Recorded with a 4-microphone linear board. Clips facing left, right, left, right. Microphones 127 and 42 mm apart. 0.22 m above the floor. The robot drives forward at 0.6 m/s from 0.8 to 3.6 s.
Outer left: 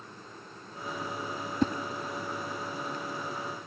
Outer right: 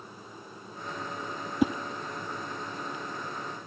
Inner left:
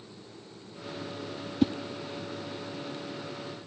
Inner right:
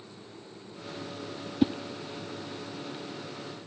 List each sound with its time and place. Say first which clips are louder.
1.6 s a whoosh: outer right 2 dB, even; 10° right (ahead or behind), 0.7 m